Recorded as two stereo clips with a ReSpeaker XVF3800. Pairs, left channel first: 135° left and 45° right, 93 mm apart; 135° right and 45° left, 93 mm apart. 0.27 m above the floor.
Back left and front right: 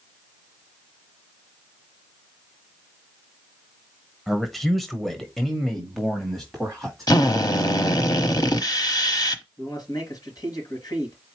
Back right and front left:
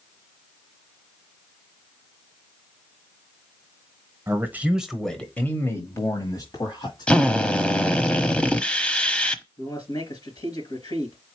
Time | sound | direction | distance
4.3 | a man speaking | 50° left | 1.1 m
7.1 | a drill | 150° left | 0.8 m
9.6 | a man speaking | 175° right | 3.5 m